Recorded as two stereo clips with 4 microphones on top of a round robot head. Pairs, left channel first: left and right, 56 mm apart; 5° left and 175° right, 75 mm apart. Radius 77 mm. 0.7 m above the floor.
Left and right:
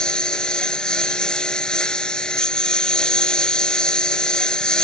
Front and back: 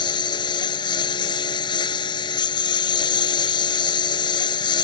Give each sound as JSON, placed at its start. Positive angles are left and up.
{"t": 0.0, "sound": "a lawn mower", "azimuth_deg": 15}